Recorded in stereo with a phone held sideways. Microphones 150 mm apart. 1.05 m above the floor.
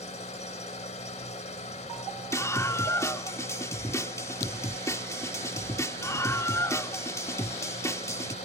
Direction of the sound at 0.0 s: 50° left (ahead or behind).